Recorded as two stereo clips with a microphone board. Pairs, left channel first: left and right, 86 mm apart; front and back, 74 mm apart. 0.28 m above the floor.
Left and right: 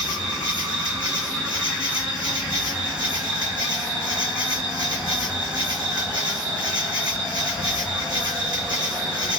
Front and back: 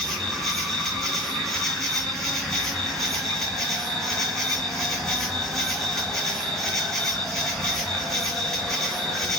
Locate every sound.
0.0 s an insect: 80° right, 1.0 m